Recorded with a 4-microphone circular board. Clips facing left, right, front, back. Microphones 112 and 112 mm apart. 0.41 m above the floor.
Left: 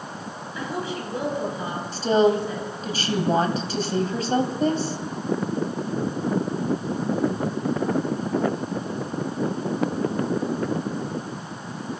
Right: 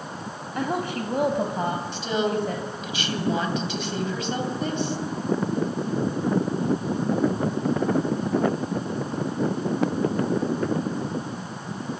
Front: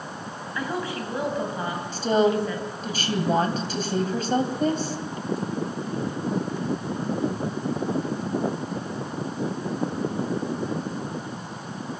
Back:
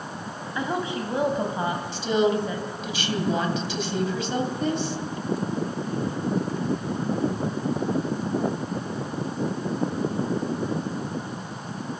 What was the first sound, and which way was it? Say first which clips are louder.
A woman speaking: right 3 dB, back 2 dB; 115° right.